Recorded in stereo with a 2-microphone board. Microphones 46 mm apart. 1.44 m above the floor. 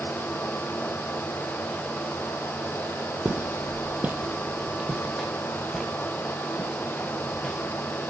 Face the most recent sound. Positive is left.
turn(degrees=15)  # may be behind; listen again after turning